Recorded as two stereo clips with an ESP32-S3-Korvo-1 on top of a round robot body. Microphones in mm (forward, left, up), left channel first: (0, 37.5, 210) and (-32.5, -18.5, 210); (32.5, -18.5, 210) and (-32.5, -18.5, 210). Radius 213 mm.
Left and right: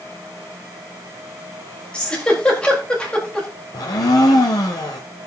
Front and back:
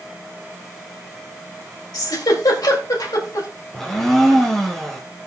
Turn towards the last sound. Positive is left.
turn(degrees=85)